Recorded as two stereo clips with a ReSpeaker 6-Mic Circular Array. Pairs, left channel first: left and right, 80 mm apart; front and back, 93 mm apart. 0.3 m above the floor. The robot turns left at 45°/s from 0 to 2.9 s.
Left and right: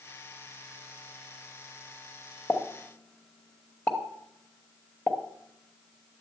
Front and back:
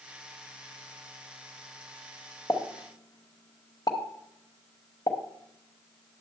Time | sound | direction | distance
2.5 | a pop | 40° left | 1.0 m